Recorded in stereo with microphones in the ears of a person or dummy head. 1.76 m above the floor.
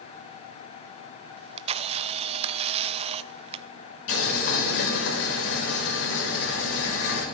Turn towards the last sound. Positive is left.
turn(degrees=70)  # may be behind; listen again after turning